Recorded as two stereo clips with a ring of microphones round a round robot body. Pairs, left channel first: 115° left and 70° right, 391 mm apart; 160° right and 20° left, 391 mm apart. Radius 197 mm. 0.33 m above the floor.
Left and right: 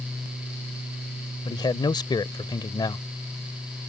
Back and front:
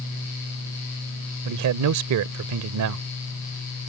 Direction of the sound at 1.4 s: 40° left.